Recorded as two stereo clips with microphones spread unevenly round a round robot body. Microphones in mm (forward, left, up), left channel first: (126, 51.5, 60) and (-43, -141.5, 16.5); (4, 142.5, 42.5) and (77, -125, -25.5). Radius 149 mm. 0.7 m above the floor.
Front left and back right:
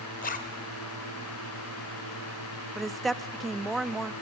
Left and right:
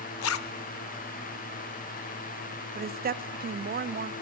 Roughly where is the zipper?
Left.